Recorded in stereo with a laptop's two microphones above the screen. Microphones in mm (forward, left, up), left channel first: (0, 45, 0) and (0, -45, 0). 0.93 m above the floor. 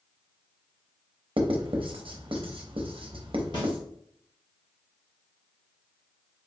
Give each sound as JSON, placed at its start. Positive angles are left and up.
{"t": 1.4, "sound": "writing", "side_deg": -75, "distance_m": 0.5}
{"t": 3.5, "sound": "a snare drum", "side_deg": 60, "distance_m": 1.3}